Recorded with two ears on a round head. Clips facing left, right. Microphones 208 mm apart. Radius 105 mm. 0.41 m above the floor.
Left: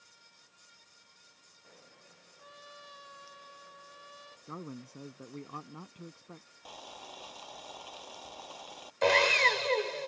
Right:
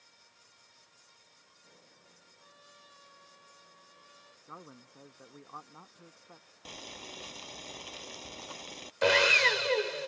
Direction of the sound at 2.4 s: 70° left (ahead or behind).